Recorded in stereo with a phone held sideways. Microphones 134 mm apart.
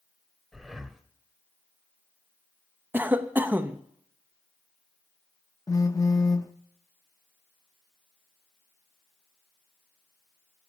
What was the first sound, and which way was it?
Breathing, centre (ahead or behind).